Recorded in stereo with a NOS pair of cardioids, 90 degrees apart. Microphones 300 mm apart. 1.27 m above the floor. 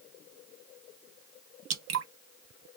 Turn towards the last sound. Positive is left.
turn(degrees=-65)